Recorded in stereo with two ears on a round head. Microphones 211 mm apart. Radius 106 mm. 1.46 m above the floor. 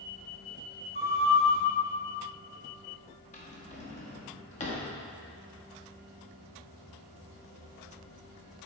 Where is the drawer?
30° left (ahead or behind), 1.0 m.